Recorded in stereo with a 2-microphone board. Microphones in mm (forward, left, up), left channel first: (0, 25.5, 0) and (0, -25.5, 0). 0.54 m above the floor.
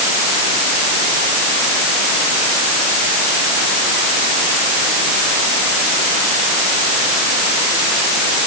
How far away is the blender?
I don't hear a blender.